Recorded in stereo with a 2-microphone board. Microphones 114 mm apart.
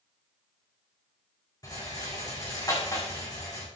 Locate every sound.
1.6 s a rattle: 35° left (ahead or behind), 6 m